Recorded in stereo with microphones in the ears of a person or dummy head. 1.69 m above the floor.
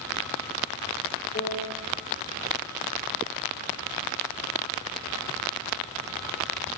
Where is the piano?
45° left (ahead or behind), 3 m.